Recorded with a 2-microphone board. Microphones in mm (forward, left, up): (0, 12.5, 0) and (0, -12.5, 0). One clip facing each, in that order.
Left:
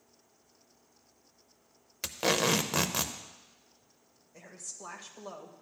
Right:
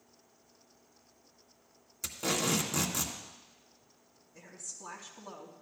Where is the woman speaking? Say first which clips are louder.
Left 1 dB; 60° left (ahead or behind), 1.9 m.